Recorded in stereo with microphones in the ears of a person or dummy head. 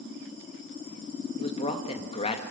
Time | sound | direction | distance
1.4 | a man speaking | 35° left (ahead or behind) | 1.9 m